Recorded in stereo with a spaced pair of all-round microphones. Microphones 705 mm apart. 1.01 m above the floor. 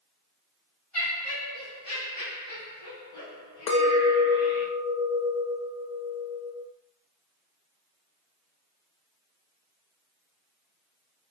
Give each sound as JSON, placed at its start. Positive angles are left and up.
{"t": 0.9, "sound": "laughter", "side_deg": 50, "distance_m": 1.4}
{"t": 3.7, "sound": "a clink", "side_deg": 80, "distance_m": 0.6}